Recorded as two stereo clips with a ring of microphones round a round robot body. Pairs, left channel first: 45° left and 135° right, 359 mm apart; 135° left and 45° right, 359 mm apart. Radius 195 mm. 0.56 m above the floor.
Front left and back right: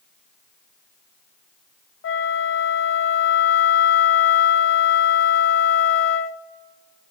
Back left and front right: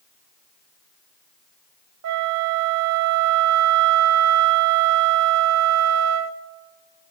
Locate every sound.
2.0 s a flute: 5° right, 0.5 m